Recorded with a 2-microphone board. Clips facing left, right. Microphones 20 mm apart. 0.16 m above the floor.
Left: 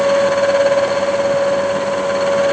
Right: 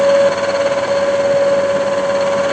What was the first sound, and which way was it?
Only background noise.